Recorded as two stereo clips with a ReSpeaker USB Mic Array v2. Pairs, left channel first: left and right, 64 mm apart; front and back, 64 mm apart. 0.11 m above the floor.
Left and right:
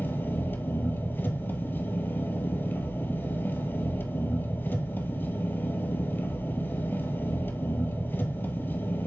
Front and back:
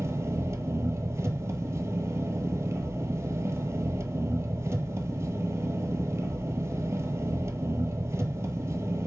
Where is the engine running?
140° left, 1.0 m.